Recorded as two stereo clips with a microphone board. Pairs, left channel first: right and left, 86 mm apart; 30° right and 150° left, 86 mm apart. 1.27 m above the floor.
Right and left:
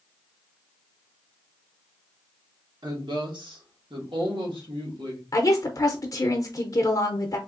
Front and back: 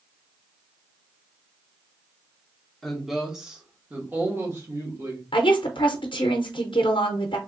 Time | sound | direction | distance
2.8 | a woman speaking | 60° left | 1.5 m
5.3 | a woman speaking | 45° right | 0.6 m